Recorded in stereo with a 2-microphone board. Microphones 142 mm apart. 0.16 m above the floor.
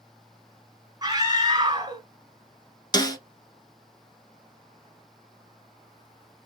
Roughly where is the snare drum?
Left.